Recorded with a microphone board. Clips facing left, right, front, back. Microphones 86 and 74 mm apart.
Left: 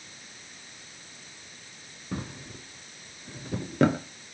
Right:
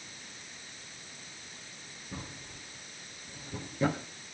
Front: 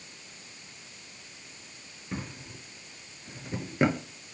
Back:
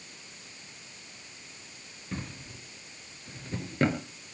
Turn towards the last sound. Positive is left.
turn(degrees=80)